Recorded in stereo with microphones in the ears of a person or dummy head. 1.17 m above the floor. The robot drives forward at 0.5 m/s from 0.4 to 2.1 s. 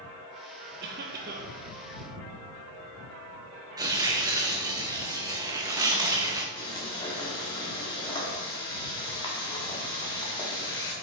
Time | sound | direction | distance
0.8 | a cough | 50° right (ahead or behind) | 0.9 m
3.8 | tearing paper | 20° right (ahead or behind) | 0.8 m
6.6 | frying | 20° left (ahead or behind) | 1.5 m